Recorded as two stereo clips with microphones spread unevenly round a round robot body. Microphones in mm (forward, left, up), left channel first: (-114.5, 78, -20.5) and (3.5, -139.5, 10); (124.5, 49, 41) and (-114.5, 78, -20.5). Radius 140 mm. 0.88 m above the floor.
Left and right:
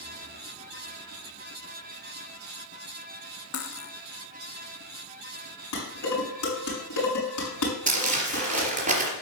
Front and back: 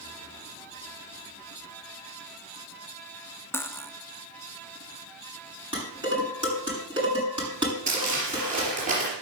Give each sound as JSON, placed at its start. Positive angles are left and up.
{"t": 3.5, "sound": "cutlery clinking", "azimuth_deg": 75, "distance_m": 1.0}
{"t": 5.7, "sound": "dishes clattering", "azimuth_deg": 105, "distance_m": 7.0}
{"t": 7.9, "sound": "crumpling", "azimuth_deg": -120, "distance_m": 3.0}